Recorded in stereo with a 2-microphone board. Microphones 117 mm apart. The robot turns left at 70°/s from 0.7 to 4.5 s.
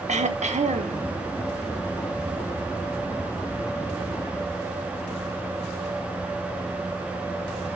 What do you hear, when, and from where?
0.1 s throat clearing: 75° right (ahead or behind), 1.2 m; by 1.0 s 55° right (ahead or behind), 1.2 m